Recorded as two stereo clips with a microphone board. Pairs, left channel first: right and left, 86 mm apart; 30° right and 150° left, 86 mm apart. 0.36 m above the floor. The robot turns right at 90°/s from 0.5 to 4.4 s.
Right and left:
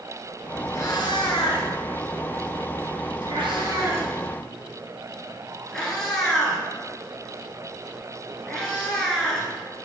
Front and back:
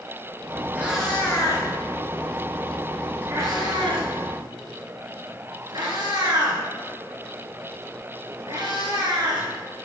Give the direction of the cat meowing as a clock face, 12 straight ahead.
5 o'clock.